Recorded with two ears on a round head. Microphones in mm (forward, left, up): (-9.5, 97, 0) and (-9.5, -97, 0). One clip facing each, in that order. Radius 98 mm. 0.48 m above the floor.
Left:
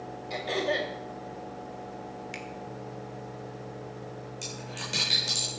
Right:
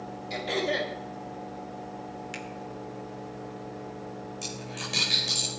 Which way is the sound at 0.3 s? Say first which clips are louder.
Even; centre (ahead or behind).